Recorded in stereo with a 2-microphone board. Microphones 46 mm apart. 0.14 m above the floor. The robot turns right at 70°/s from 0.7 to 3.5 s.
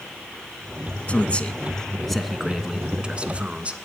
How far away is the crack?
I don't hear a crack.